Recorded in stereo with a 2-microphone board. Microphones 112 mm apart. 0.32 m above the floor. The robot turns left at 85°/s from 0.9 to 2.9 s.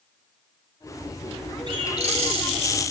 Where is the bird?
50° right, 0.7 m; by 2.5 s 115° right, 0.7 m.